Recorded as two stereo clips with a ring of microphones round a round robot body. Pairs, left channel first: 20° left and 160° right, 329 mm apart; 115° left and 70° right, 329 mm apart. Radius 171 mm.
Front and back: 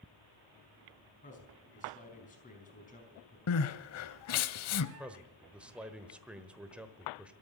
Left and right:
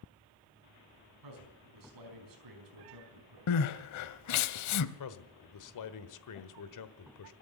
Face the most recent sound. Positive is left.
turn(degrees=115)